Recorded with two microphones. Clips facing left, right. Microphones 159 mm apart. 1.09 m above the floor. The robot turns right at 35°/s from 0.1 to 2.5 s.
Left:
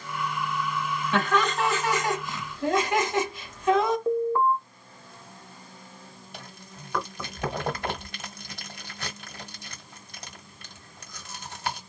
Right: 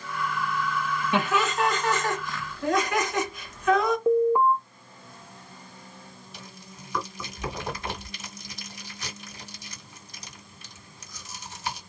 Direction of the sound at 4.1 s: 15° right (ahead or behind).